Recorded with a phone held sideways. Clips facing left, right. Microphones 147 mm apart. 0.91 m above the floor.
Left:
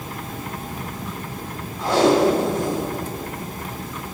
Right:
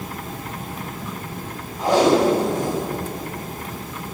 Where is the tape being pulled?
15° right (ahead or behind), 2 m.